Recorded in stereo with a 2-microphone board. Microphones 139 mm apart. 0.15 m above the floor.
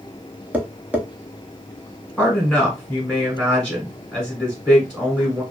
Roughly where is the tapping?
Centre.